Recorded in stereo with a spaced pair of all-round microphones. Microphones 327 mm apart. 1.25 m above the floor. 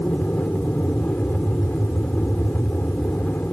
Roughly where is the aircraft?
Centre.